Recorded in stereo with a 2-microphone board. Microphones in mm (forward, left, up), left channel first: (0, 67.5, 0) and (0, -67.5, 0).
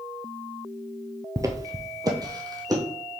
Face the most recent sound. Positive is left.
turn(degrees=-25)  # may be behind; listen again after turning